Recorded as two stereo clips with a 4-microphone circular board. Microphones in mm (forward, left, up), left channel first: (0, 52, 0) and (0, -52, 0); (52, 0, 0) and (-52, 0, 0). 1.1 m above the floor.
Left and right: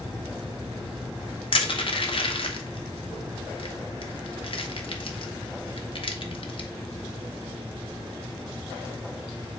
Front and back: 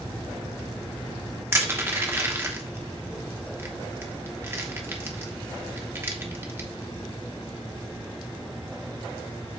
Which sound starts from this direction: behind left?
Crushing, at 1.5 s.